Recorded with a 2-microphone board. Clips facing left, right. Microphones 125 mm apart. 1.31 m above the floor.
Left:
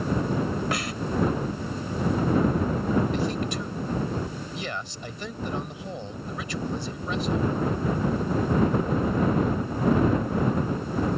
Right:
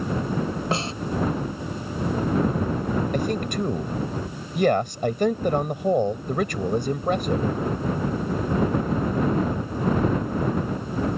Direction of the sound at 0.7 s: 30° right (ahead or behind).